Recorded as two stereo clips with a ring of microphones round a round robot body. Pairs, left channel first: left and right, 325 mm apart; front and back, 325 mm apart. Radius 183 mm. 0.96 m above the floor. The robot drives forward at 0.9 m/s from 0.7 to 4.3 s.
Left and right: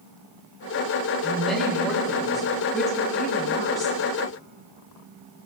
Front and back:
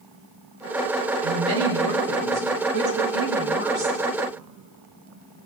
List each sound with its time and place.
1.2 s a woman speaking: straight behind, 3 m